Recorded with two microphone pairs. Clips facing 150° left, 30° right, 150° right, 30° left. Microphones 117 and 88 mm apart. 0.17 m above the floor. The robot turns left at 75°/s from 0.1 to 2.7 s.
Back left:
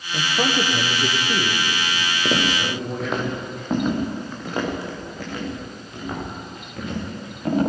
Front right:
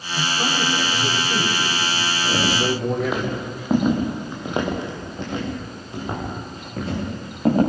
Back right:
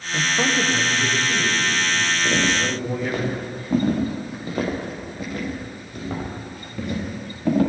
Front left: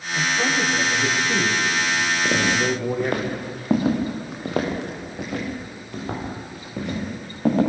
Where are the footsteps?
105° left, 5 m; by 7.6 s 20° left, 10 m.